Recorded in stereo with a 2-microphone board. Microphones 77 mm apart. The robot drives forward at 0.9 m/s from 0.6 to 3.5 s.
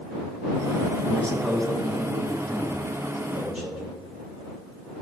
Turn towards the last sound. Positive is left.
turn(degrees=5)  # may be behind; listen again after turning